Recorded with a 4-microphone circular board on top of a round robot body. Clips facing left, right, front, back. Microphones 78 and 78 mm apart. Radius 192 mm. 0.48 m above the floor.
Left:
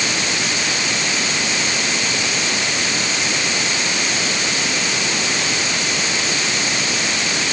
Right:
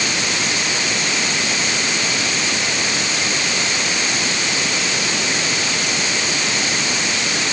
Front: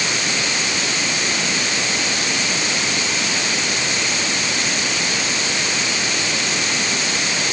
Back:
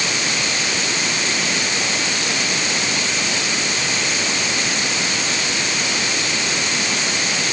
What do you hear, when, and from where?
Only background noise.